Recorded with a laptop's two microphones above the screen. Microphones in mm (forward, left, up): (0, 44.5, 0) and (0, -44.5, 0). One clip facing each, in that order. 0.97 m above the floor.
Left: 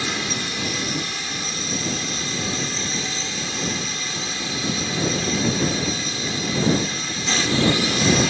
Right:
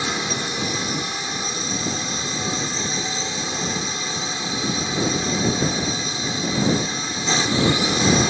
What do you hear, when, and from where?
0.0 s a drone: 20° right (ahead or behind)